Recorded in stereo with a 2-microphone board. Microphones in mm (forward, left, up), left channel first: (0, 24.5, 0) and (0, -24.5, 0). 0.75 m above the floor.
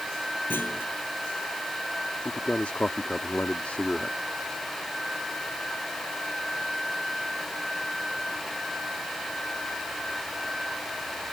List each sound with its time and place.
0.5 s a clunk: 45° left (ahead or behind)
2.2 s a man speaking: 30° left (ahead or behind)